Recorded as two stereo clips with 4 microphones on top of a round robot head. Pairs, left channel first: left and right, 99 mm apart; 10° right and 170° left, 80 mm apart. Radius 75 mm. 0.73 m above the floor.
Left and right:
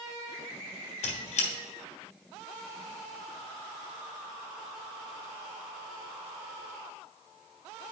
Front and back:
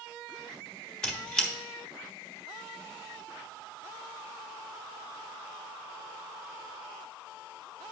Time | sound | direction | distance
1.0 | a squeak | 70° left | 1.3 m